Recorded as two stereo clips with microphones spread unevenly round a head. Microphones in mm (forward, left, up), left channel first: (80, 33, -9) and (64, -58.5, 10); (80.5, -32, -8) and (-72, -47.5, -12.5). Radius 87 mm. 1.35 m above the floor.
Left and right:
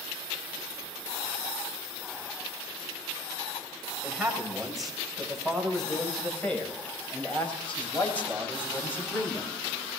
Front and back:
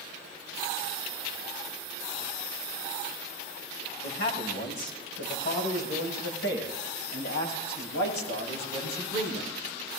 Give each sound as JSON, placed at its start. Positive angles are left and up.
{"t": 4.0, "sound": "a man speaking", "azimuth_deg": -15, "distance_m": 6.5}